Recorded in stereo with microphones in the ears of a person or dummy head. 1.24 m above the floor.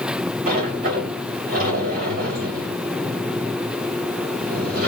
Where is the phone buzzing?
I don't hear a phone buzzing.